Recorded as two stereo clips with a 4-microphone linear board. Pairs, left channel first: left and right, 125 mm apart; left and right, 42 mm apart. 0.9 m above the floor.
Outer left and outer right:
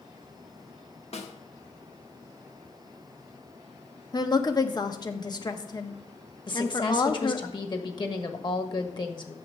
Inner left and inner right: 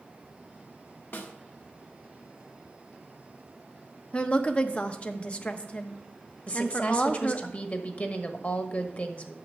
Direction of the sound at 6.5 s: 40° left (ahead or behind).